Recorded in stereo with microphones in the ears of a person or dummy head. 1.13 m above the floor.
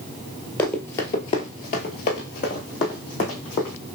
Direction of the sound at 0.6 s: 15° left (ahead or behind).